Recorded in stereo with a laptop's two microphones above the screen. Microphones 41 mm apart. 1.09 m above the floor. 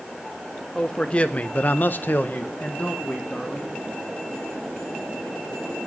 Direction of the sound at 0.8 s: 25° left (ahead or behind).